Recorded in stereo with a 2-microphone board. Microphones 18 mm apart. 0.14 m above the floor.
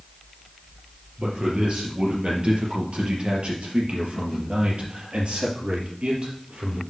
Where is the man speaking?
55° right (ahead or behind), 3.5 m; by 6.8 s 60° right (ahead or behind), 3.5 m.